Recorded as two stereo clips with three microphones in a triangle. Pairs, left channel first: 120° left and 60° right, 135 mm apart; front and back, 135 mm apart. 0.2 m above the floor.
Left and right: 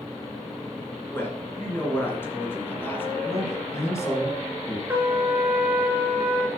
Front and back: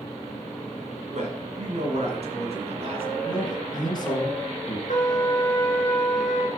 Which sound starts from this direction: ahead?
A trumpet, at 4.9 s.